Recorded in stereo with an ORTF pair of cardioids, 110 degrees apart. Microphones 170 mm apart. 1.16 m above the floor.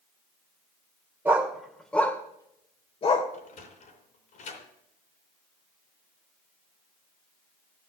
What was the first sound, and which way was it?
A dog barking, 10° right.